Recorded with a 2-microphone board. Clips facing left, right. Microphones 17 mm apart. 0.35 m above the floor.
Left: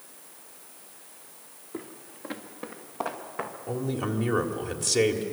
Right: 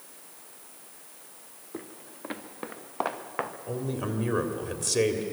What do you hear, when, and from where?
1.7 s footsteps: centre (ahead or behind), 1.6 m; by 3.5 s 40° right (ahead or behind), 2.5 m
3.7 s a man speaking: 5° left (ahead or behind), 1.7 m